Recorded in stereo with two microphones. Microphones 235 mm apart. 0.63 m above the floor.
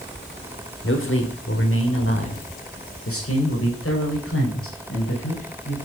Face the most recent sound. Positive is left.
turn(degrees=65)  # may be behind; listen again after turning